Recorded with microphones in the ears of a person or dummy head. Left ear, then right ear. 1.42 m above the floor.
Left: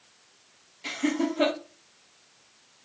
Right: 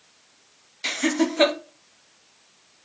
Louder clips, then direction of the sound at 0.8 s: Right 5 dB; 55° right (ahead or behind).